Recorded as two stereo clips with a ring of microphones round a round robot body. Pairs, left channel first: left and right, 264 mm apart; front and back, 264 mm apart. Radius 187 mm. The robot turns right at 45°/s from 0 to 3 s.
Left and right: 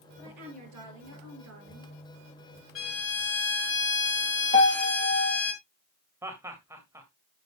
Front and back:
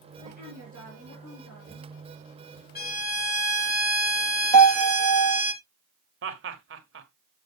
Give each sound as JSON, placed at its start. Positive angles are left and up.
{"t": 0.2, "sound": "a woman speaking", "azimuth_deg": -120, "distance_m": 6.0}
{"t": 2.8, "sound": "a violin", "azimuth_deg": 50, "distance_m": 4.0}
{"t": 4.5, "sound": "a piano", "azimuth_deg": -140, "distance_m": 2.0}
{"t": 6.2, "sound": "laughter", "azimuth_deg": -170, "distance_m": 1.7}